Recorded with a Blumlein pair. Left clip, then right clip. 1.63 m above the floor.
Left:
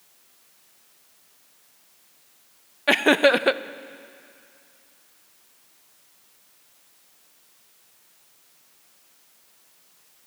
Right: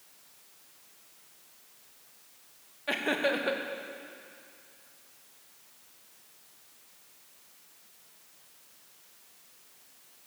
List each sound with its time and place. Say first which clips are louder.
2.9 s laughter: left 12 dB; 55° left, 0.8 m